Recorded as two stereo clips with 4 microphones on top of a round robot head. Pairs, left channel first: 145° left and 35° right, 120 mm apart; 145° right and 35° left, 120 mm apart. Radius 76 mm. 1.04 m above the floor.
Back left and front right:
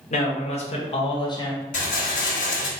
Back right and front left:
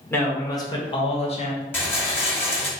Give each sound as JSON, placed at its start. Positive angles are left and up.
{"t": 0.1, "sound": "a man speaking", "azimuth_deg": 145, "distance_m": 1.4}
{"t": 1.7, "sound": "a rattle", "azimuth_deg": 145, "distance_m": 1.1}